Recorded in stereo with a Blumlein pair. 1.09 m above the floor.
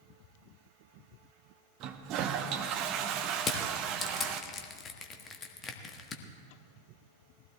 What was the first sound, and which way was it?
A toilet flushing, 40° right.